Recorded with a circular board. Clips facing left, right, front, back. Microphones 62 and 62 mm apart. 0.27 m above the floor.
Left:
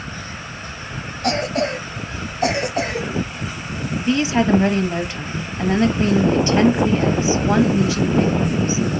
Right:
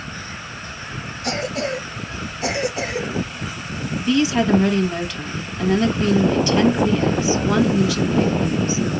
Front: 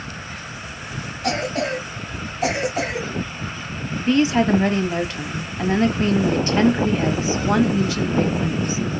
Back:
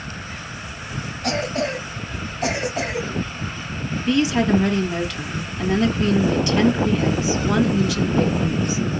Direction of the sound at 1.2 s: 85° left.